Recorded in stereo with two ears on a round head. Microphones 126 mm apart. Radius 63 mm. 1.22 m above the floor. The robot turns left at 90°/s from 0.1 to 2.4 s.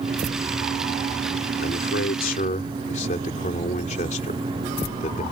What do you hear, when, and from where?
1.6 s a man speaking: 120° left; by 5.2 s 50° left